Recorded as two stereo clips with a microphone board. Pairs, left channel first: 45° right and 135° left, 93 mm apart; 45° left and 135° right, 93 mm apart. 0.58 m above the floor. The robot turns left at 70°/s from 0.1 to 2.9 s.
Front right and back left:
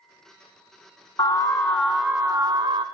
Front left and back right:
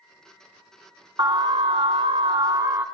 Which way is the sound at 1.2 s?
90° right.